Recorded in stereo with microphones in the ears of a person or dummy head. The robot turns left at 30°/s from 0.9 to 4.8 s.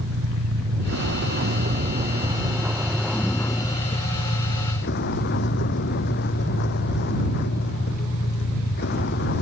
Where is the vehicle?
120° right; by 9.4 s 125° left.